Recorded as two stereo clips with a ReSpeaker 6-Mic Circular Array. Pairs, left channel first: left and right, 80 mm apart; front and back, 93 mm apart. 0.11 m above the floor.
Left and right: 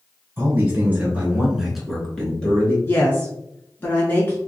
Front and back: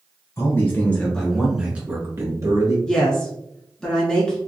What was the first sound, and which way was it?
A man speaking, 45° right.